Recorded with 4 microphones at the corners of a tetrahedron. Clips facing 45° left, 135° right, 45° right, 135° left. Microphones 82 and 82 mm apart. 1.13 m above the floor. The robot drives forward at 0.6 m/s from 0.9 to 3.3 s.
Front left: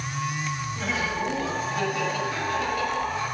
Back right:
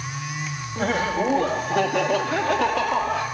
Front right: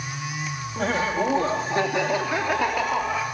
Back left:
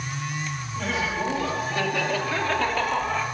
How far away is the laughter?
About 1.7 m.